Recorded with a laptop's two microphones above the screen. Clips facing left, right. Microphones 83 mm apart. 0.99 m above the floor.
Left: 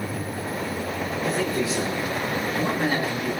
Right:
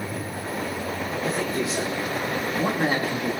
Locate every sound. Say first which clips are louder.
1.2 s a man speaking: left 2 dB; centre (ahead or behind), 3.5 m; by 3.4 s 30° right (ahead or behind), 1.5 m